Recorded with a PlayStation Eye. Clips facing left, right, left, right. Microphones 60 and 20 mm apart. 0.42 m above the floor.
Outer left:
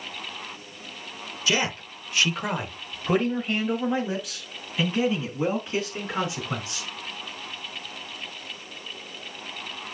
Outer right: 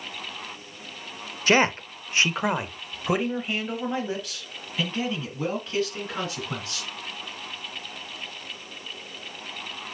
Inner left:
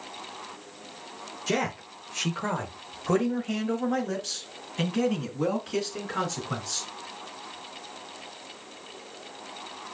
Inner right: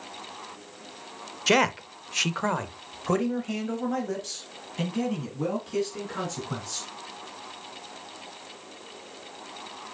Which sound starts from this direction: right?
A man speaking, at 1.5 s.